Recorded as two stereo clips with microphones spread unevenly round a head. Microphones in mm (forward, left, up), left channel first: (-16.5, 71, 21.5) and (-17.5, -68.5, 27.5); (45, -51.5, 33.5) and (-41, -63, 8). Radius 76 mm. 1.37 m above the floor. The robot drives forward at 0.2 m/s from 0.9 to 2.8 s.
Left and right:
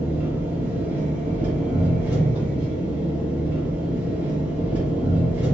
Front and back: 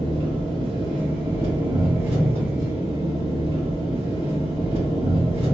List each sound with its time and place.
0.0 s an engine running: 165° right, 0.8 m; by 5.5 s 170° right, 1.1 m